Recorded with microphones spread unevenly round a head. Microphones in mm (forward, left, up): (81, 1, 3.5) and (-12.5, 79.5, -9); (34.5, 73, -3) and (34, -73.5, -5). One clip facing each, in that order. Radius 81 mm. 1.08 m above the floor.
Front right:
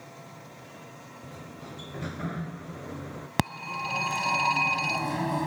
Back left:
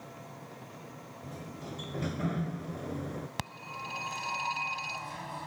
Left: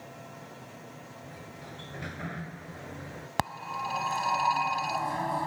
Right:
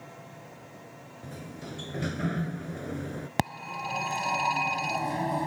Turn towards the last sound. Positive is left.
turn(degrees=-25)